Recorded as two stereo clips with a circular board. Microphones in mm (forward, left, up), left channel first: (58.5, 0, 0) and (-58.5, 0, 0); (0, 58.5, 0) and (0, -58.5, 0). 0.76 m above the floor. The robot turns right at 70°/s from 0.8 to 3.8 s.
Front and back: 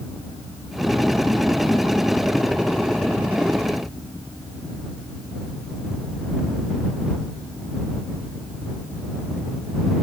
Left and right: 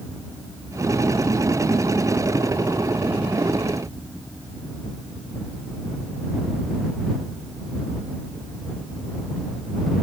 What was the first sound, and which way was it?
Only background noise.